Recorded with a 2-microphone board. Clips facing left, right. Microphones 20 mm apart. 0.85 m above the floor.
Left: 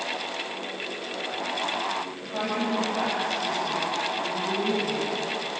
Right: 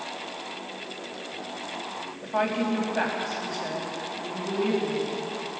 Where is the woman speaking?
20° right (ahead or behind), 5 m.